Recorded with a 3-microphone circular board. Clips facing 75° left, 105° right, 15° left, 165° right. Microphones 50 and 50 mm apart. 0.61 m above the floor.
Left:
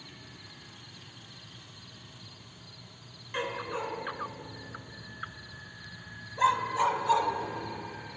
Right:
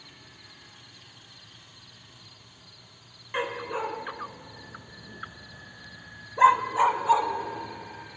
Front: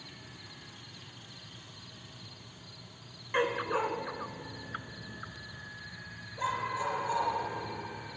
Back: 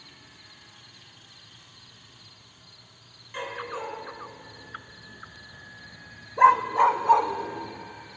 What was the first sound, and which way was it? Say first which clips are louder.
A dog barking: right 3 dB, front 4 dB; 35° right.